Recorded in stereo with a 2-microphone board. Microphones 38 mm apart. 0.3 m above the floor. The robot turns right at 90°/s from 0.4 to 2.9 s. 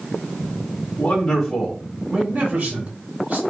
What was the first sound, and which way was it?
A man speaking, 130° left.